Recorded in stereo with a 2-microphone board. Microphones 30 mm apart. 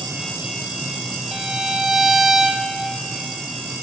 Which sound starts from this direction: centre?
A violin, at 1.3 s.